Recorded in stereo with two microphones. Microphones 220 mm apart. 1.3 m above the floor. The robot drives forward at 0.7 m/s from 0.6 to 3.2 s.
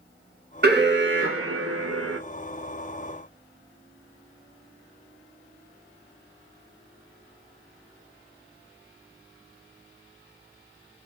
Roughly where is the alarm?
Right.